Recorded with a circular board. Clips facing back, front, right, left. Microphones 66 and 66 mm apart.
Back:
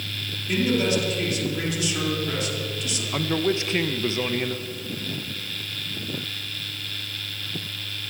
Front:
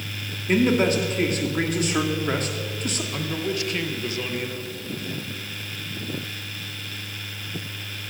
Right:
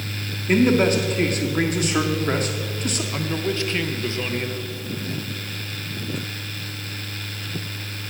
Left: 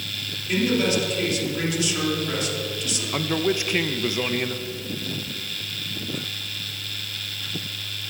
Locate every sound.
0.5 s a man speaking: 45° right, 2 m
3.1 s a man speaking: 145° left, 0.8 m